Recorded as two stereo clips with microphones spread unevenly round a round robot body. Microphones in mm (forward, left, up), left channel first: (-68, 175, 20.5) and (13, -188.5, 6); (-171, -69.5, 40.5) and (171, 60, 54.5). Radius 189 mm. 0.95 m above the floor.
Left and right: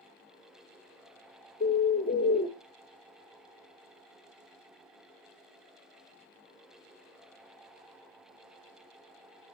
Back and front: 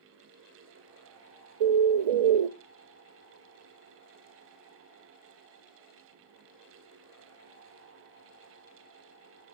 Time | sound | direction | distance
1.6 | a bird | 35° left | 0.5 m